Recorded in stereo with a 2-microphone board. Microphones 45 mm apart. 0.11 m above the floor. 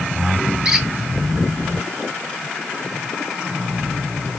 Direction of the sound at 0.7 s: 10° right (ahead or behind).